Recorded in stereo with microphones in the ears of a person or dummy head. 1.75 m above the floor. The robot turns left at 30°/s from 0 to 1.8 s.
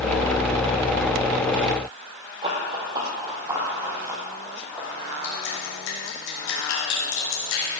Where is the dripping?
75° left (ahead or behind), 3.5 m.